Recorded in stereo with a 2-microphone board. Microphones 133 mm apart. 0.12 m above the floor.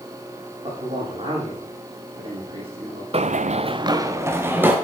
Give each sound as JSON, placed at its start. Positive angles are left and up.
{"t": 0.6, "sound": "a man speaking", "side_deg": -50, "distance_m": 5.0}
{"t": 3.1, "sound": "running footsteps", "side_deg": -55, "distance_m": 0.6}